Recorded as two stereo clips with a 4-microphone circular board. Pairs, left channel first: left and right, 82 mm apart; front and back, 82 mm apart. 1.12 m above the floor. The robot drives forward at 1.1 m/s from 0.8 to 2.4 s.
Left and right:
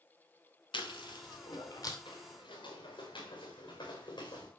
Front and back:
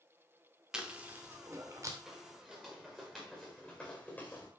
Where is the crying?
I don't hear crying.